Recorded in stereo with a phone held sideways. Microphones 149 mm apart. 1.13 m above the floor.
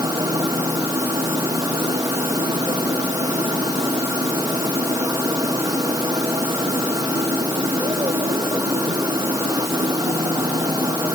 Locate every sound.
0.0 s a machine running: 25° right (ahead or behind)